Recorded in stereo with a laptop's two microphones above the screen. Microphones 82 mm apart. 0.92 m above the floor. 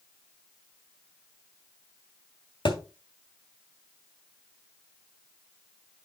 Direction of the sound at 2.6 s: 80° left.